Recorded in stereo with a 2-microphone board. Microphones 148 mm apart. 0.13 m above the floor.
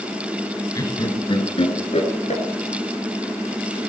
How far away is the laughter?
About 1.7 m.